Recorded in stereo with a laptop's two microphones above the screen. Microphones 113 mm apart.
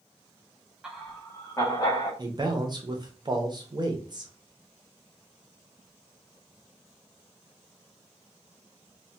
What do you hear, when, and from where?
0.8 s laughter: 5° right (ahead or behind), 0.7 m; by 2.1 s 40° left (ahead or behind), 1.2 m
2.2 s a man speaking: 35° right (ahead or behind), 0.5 m